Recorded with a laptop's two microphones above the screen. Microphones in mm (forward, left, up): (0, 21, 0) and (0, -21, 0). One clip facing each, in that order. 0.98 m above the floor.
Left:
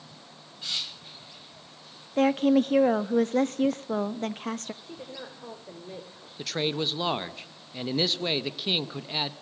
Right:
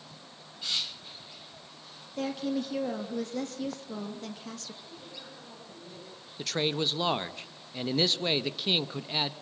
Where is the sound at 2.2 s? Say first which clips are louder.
Left 10 dB; 50° left (ahead or behind), 1.3 m.